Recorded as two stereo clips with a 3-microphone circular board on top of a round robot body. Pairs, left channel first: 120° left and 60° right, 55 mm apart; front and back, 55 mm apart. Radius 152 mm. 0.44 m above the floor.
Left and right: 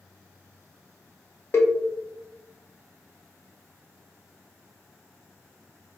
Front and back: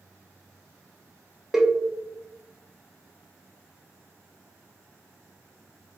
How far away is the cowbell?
About 0.6 m.